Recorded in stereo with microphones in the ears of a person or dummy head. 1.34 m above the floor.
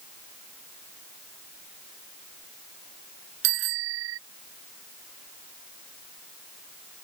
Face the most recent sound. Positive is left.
turn(degrees=-75)  # may be behind; listen again after turning